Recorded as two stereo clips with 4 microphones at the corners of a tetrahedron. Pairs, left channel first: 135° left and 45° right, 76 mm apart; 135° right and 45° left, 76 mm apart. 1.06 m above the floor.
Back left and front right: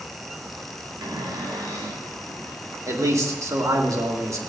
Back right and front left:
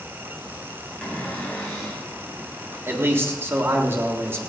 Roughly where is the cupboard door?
Ahead right.